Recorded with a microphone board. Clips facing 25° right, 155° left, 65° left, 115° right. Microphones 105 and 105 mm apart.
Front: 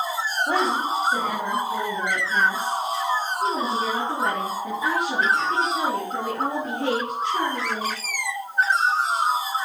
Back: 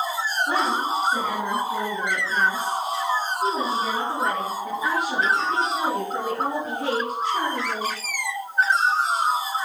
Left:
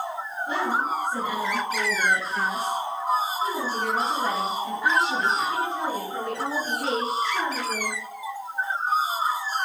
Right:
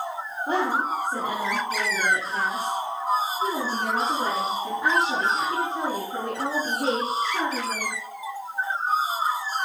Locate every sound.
0.5 s a woman speaking: 65° right, 3 m; by 8.0 s 45° right, 7 m